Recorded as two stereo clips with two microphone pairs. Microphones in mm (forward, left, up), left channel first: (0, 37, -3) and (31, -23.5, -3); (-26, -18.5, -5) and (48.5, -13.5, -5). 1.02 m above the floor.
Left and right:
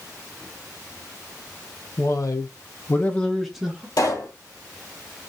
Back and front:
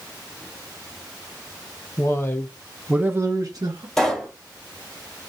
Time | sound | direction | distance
2.0 | a man speaking | 140° left | 1.0 m
4.0 | a pop | 100° left | 1.5 m